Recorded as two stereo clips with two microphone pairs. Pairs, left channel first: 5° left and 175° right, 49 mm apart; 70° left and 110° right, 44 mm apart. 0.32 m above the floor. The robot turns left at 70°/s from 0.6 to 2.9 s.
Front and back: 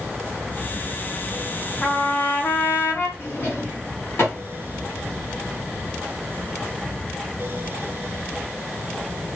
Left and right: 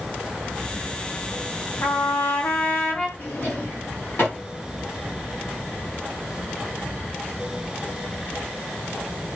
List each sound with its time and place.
1.8 s a trumpet: 85° left, 2.5 m; by 3.1 s 10° left, 2.5 m
3.2 s a drawer: 35° left, 7.5 m